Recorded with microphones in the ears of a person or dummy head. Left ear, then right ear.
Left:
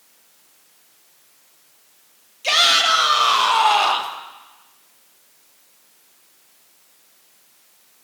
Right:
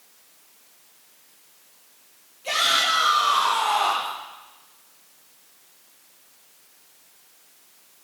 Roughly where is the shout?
Left.